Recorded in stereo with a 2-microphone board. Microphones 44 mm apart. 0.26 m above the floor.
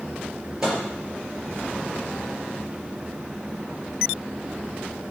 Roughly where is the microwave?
Centre.